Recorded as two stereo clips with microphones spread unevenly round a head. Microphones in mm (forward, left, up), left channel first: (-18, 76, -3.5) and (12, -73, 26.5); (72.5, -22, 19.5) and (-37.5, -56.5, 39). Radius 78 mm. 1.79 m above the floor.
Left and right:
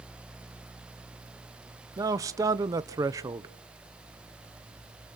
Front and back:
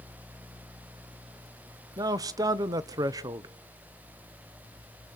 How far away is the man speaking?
About 0.7 m.